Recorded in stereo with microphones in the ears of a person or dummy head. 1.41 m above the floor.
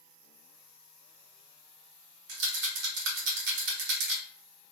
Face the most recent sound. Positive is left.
turn(degrees=-65)  # may be behind; listen again after turning